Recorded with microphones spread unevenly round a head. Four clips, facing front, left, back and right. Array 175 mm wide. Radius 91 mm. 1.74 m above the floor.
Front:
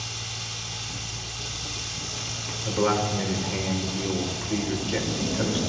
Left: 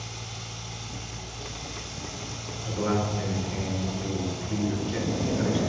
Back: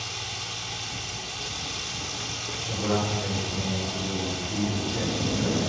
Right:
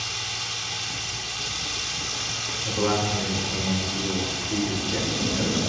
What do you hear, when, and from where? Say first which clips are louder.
0.0 s running water: right 5 dB, back 2 dB; 140° right, 1.7 m
2.6 s a man speaking: right 3 dB, front 4 dB; 20° right, 5.5 m